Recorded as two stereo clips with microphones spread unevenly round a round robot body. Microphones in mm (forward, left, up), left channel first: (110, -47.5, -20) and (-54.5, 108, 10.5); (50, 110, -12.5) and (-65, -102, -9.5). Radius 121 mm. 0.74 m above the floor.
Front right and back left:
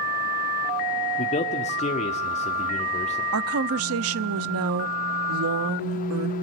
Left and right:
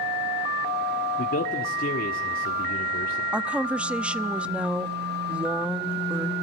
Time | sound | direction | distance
1.2 | a man speaking | 10° left | 1.4 m
3.3 | a woman speaking | 155° left | 0.7 m